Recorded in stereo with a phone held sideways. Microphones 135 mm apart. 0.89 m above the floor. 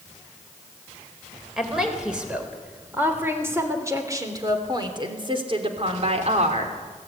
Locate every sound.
1.6 s a woman speaking: 5° right (ahead or behind), 4.5 m; by 6.8 s 55° right (ahead or behind), 3 m